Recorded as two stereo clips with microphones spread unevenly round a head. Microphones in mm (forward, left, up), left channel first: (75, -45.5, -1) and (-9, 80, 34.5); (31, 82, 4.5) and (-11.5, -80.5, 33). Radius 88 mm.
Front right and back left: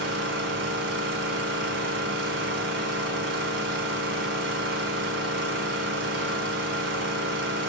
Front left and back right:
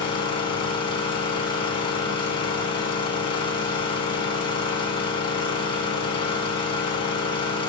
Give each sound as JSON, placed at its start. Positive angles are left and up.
{"t": 0.0, "sound": "an engine running", "azimuth_deg": 140, "distance_m": 5.0}